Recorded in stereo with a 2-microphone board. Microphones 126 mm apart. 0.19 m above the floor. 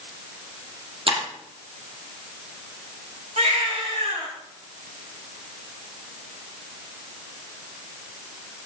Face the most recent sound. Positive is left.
turn(degrees=-80)